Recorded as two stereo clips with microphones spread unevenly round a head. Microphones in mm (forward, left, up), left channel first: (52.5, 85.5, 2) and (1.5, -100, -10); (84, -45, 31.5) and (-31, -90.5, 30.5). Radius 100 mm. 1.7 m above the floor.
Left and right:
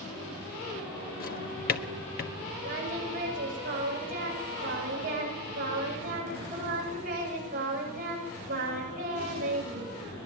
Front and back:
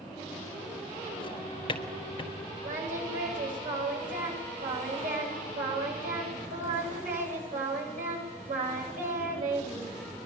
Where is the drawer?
75° left, 1.4 m.